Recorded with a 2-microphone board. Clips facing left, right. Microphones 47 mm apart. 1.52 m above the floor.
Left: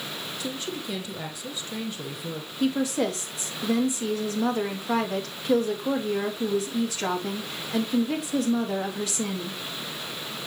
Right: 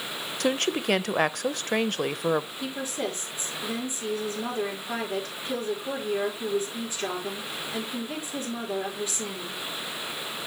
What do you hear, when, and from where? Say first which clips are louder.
0.4 s a woman speaking: right 10 dB; 60° right (ahead or behind), 0.6 m
2.6 s a woman speaking: left 7 dB; 90° left, 2.5 m